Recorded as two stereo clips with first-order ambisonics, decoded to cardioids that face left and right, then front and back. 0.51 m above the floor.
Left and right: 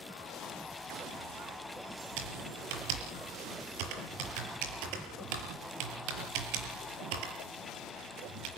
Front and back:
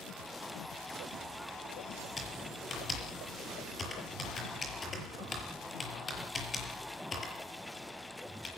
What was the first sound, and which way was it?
Typing on a keyboard, 75° right.